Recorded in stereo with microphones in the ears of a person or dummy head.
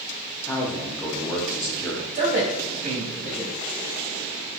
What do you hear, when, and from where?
0.5 s a man speaking: 10° left (ahead or behind), 0.7 m
2.1 s a man speaking: 45° right (ahead or behind), 1.4 m